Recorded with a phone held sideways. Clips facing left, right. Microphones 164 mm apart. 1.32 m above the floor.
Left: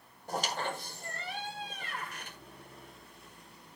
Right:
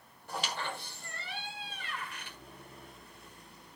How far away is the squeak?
About 1.4 m.